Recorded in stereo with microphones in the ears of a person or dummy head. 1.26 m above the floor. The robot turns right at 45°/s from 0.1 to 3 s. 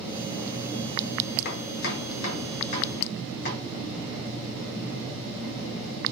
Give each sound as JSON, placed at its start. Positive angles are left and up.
{"t": 1.4, "sound": "chopping", "side_deg": 60, "distance_m": 1.9}